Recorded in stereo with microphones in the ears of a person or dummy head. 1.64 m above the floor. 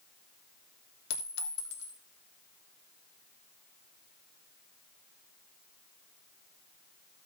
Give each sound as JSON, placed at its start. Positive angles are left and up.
{"t": 1.1, "sound": "a clink", "side_deg": 75, "distance_m": 2.5}